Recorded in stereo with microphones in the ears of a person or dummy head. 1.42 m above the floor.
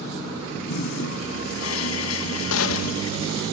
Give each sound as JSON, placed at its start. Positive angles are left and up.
{"t": 0.7, "sound": "a toilet flushing", "side_deg": 80}
{"t": 2.5, "sound": "a gunshot", "side_deg": 85}